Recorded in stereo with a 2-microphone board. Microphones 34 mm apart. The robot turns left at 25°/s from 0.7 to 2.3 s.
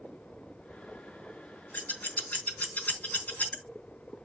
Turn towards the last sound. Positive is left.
turn(degrees=55)  # may be behind; listen again after turning